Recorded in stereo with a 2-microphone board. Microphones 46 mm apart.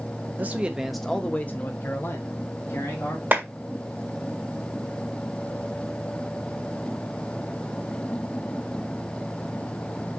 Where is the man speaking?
35° right (ahead or behind), 0.6 m; by 3.2 s 70° left (ahead or behind), 1.6 m.